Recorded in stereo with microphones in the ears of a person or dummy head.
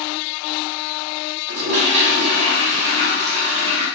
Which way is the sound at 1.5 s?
40° right (ahead or behind).